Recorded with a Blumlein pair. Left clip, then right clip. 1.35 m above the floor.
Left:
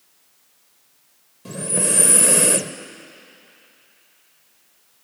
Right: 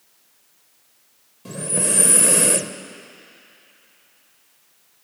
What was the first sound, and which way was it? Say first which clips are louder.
Breathing: left 1 dB; straight ahead.